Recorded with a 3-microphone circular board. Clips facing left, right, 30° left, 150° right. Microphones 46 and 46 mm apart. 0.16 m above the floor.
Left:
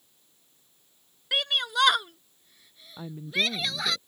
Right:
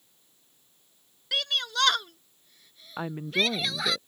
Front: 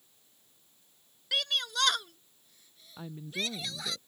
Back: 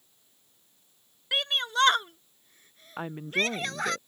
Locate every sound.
1.3 s a shout: 155° left; by 4.0 s 175° right
3.0 s a woman speaking: 115° right